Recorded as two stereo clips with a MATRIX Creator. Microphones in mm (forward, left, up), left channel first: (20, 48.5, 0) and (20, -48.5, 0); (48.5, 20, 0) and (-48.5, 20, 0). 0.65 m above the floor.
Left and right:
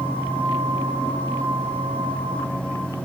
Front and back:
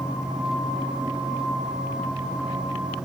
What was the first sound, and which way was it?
Only background noise.